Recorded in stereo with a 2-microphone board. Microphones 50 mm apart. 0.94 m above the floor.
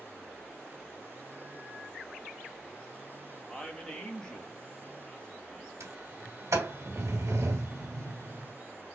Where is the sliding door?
75° right (ahead or behind), 1.6 m.